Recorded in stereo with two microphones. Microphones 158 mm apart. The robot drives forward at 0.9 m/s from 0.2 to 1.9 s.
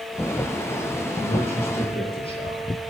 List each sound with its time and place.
1.2 s a man speaking: 40° left (ahead or behind), 8 m; by 2.7 s 35° left (ahead or behind), 8.5 m